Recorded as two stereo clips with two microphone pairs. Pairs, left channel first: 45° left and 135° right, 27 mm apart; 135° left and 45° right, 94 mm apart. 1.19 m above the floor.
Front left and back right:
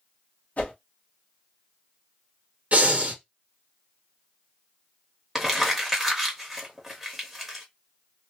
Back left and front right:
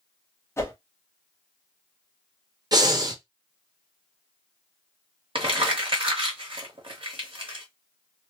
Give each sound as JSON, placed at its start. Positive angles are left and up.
{"t": 0.6, "sound": "a whoosh", "azimuth_deg": 75, "distance_m": 1.1}
{"t": 2.7, "sound": "breathing", "azimuth_deg": -95, "distance_m": 0.8}
{"t": 5.3, "sound": "crumpling", "azimuth_deg": -55, "distance_m": 1.3}